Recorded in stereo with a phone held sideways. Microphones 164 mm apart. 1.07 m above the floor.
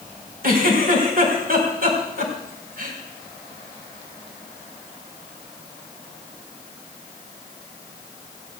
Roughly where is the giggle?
Right.